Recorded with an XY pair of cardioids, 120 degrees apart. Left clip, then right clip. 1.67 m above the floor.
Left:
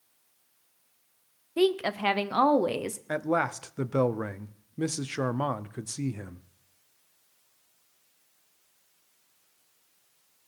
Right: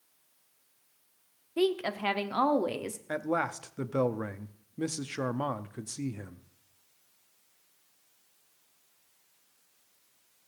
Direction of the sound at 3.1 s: 15° left.